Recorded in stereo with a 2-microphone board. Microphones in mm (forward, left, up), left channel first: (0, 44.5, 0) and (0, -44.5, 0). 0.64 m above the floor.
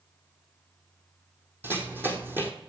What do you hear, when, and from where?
1.6 s running footsteps: 25° right (ahead or behind), 1.4 m